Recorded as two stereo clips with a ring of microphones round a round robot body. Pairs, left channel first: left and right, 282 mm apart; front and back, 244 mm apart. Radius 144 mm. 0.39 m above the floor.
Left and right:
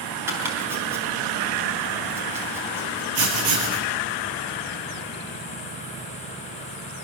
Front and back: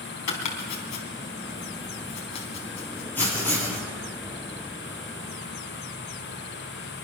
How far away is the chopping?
About 3.5 m.